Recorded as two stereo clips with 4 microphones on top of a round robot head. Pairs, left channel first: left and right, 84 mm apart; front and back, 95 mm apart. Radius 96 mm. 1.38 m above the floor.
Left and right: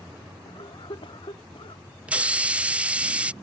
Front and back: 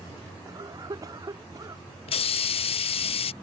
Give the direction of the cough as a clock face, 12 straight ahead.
8 o'clock.